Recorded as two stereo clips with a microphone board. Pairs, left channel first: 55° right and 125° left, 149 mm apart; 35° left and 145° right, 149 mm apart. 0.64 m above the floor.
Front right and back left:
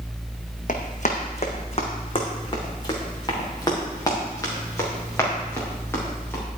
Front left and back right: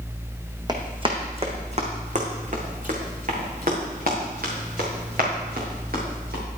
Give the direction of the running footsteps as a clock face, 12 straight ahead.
3 o'clock.